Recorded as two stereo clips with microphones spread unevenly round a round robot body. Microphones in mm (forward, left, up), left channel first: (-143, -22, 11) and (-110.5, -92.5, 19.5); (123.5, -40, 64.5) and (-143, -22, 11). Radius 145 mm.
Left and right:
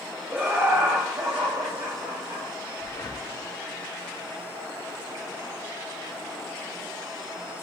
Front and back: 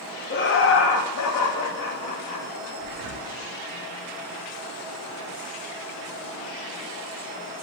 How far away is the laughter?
About 0.5 m.